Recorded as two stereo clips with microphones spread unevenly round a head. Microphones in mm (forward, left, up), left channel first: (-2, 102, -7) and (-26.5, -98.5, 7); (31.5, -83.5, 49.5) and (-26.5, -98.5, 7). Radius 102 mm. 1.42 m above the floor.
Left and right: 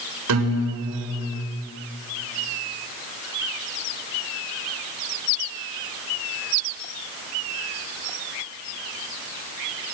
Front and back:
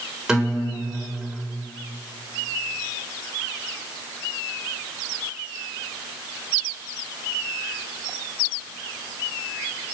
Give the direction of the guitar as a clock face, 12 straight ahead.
3 o'clock.